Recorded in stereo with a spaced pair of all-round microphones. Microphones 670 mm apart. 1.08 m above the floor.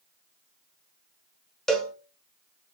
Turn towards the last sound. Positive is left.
turn(degrees=0)  # may be behind; listen again after turning